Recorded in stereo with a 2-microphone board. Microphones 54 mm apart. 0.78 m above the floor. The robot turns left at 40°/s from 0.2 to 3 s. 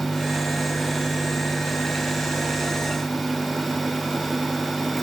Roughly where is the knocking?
I don't hear knocking.